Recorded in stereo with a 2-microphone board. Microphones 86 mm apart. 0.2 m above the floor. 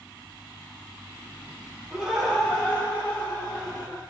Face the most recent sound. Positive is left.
turn(degrees=40)  # may be behind; listen again after turning